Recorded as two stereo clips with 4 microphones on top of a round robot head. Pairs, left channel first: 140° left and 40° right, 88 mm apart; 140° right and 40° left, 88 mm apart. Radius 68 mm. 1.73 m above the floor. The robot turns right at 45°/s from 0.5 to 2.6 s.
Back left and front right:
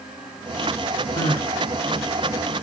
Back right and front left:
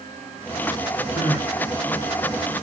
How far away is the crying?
About 1.9 m.